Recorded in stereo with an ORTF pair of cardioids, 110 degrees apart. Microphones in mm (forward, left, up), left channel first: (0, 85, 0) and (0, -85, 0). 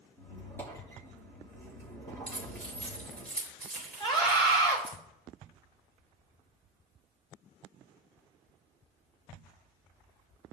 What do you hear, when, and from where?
0.2 s a squeak: 15° left, 4 m
2.3 s keys jangling: 5° left, 3.5 m
4.0 s a scream: 30° left, 4 m